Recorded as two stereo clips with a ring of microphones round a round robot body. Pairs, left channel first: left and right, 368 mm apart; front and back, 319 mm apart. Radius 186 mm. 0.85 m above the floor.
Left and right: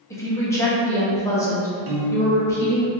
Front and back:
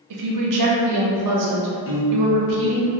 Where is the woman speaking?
170° left, 0.7 m.